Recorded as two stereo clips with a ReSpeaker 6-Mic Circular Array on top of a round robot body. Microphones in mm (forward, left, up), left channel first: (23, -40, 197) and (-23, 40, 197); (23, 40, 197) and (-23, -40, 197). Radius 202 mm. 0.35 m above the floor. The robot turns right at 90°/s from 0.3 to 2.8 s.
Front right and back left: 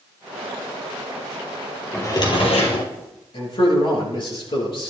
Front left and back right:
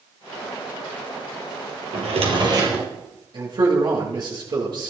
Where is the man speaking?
85° right, 9 m.